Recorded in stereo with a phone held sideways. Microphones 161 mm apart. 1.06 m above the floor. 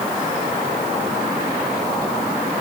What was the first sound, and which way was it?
Only background noise.